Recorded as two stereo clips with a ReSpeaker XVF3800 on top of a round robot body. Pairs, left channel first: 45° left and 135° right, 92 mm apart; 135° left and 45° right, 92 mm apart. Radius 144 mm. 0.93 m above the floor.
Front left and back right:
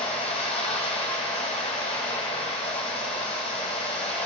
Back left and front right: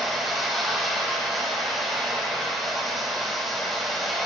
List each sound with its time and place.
0.0 s running water: 45° left, 1.2 m